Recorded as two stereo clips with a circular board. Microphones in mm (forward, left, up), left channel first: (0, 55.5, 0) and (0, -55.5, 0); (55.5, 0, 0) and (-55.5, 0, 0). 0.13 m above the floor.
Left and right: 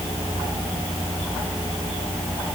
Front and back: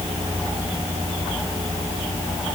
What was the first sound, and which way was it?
Only background noise.